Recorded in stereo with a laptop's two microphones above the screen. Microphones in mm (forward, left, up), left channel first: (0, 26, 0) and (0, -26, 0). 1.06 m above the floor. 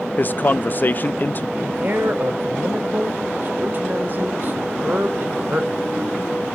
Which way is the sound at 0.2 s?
40° left (ahead or behind).